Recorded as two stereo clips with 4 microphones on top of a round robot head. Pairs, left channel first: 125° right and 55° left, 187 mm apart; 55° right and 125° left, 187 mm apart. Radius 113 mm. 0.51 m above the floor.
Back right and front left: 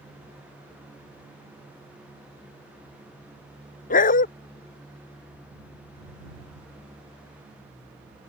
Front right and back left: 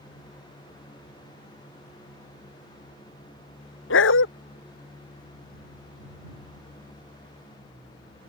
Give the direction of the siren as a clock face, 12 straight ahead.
No siren in this recording.